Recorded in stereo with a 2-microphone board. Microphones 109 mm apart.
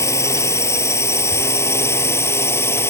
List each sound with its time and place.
0.0 s a drone: 25° left (ahead or behind); by 2.9 s 20° left (ahead or behind)